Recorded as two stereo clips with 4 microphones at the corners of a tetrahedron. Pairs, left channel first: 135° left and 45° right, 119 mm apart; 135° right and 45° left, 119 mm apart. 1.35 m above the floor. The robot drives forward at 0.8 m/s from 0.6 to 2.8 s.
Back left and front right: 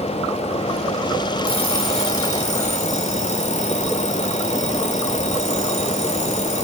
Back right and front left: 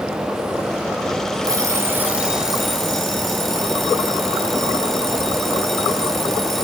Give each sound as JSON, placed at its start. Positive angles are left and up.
{"t": 1.4, "sound": "an alarm clock", "azimuth_deg": 100, "distance_m": 1.3}